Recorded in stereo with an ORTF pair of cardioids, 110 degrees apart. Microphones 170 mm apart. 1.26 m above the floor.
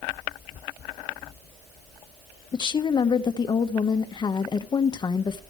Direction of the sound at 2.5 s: 30° left.